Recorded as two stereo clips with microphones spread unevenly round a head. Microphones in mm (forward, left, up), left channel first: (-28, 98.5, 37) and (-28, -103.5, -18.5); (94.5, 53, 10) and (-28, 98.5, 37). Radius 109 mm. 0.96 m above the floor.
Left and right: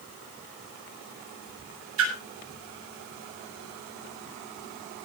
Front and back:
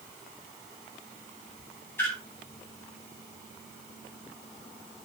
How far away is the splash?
About 7 m.